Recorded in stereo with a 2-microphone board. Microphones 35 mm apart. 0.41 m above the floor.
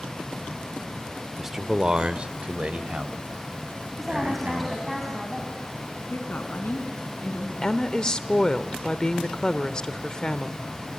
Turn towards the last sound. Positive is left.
turn(degrees=25)  # may be behind; listen again after turning